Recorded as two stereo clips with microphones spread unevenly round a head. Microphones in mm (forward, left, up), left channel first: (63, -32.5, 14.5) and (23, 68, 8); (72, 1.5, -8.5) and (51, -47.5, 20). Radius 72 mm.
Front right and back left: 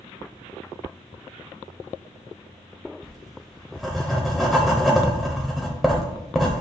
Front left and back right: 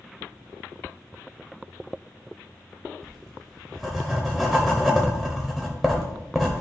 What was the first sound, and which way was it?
Writing, 155° right.